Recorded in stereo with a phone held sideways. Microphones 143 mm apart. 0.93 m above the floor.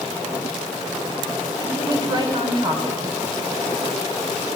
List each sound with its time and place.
1.6 s a woman speaking: 35° right (ahead or behind), 3.5 m